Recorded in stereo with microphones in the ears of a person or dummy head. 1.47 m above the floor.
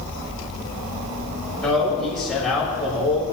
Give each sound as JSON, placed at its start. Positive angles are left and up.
{"t": 1.6, "sound": "a man speaking", "side_deg": 5, "distance_m": 6.5}